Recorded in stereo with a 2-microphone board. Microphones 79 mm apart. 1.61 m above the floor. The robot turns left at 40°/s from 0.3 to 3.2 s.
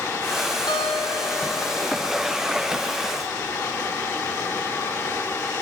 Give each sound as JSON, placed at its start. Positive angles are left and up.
{"t": 0.7, "sound": "a guitar", "azimuth_deg": 95, "distance_m": 4.0}